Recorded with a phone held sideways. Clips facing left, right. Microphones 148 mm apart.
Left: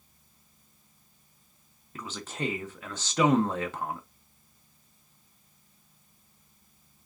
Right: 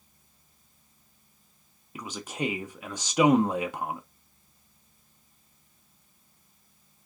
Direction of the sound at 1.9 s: 15° right (ahead or behind).